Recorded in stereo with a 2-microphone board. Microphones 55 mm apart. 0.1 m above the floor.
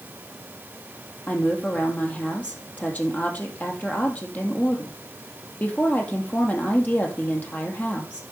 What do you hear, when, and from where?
1.3 s a woman speaking: 30° left (ahead or behind), 2.5 m